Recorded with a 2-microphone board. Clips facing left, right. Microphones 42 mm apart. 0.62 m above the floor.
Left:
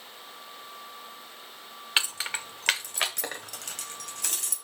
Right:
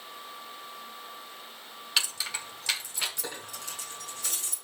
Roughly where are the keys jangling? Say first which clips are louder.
Left 3 dB; left.